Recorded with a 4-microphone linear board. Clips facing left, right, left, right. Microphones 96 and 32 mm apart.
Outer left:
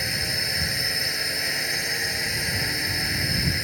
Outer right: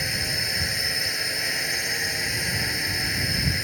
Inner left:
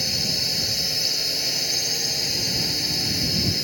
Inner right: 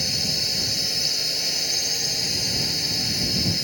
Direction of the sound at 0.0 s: Centre (ahead or behind).